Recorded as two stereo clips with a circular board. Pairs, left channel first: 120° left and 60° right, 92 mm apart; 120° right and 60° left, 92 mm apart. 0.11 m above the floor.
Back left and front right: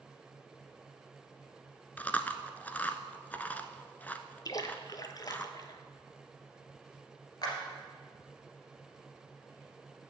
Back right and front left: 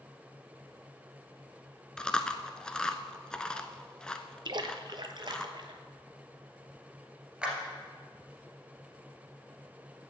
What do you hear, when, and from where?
2.0 s chewing: 170° left, 0.5 m
4.5 s a splash: 80° left, 0.6 m
7.4 s a clap: 135° left, 2 m